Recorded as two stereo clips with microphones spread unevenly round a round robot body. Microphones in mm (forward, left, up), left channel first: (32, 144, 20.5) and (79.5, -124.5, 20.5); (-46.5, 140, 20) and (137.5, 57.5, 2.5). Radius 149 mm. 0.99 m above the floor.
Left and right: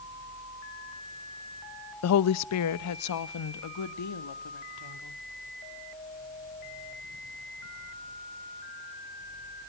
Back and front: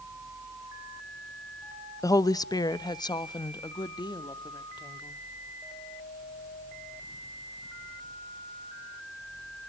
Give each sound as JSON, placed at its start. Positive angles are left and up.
{"t": 2.0, "sound": "a woman speaking", "azimuth_deg": 80, "distance_m": 0.7}